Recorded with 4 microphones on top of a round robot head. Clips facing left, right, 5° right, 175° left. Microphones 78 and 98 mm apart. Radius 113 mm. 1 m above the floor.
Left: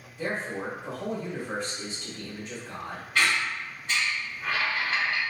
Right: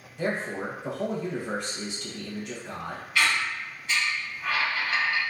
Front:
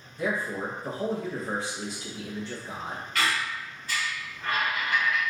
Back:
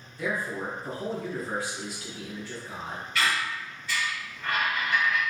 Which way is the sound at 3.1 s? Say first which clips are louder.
Even, back 1 dB; 25° left.